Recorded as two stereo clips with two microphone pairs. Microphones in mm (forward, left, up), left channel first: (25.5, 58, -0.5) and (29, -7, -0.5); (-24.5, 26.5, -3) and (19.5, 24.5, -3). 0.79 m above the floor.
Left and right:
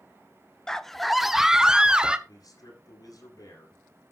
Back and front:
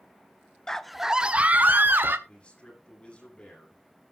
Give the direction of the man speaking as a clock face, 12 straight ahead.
8 o'clock.